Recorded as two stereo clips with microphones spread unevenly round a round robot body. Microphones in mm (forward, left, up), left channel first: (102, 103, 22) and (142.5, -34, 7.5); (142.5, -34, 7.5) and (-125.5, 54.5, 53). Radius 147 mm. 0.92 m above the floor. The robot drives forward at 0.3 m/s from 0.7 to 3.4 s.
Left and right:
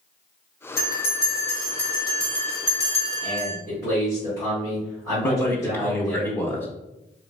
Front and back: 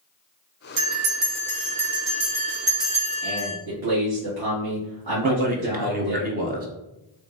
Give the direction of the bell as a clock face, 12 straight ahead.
7 o'clock.